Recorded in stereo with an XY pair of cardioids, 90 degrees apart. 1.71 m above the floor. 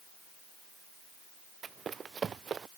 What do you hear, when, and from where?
1.6 s running footsteps: 50° right